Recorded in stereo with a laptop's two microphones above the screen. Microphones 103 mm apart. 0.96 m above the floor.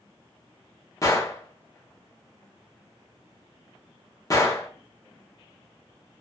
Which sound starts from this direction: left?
A gunshot, at 1.0 s.